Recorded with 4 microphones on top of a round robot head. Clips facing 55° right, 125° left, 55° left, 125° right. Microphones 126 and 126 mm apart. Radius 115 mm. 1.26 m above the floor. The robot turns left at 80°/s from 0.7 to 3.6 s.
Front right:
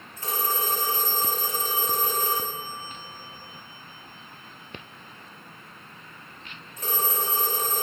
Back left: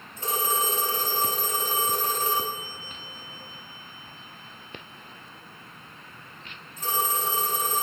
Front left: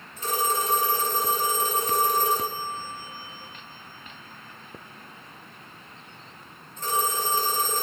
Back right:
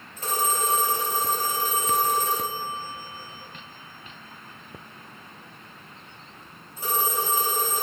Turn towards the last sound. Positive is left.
turn(degrees=-40)